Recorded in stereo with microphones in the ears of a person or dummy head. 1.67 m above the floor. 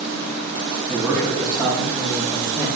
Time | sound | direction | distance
0.9 | a man speaking | centre (ahead or behind) | 3 m